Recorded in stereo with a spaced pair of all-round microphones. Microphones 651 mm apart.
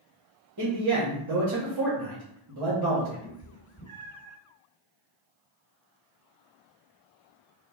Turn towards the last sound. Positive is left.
turn(degrees=25)  # may be behind; listen again after turning